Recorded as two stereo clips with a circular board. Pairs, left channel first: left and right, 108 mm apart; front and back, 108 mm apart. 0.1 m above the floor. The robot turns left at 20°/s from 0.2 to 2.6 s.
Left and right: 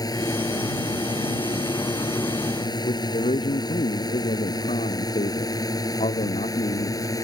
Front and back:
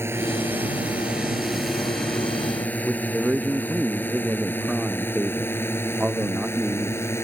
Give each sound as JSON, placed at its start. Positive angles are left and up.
{"t": 0.0, "sound": "a drone", "azimuth_deg": 125}
{"t": 2.8, "sound": "a man speaking", "azimuth_deg": 100}